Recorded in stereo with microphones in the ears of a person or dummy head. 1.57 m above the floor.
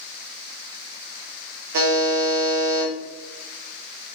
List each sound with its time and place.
1.7 s a buzzer: 60° right (ahead or behind), 1.0 m